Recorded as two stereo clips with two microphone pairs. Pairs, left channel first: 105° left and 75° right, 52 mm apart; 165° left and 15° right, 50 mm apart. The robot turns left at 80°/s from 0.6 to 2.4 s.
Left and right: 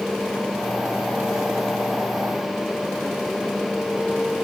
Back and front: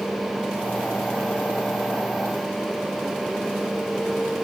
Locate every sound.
Only background noise.